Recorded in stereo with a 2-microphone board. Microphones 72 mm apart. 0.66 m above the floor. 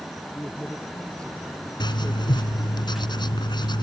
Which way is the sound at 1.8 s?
70° left (ahead or behind).